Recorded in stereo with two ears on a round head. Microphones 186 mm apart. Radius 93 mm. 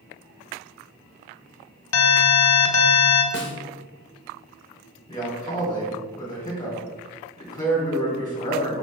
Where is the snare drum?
60° left (ahead or behind), 0.8 m.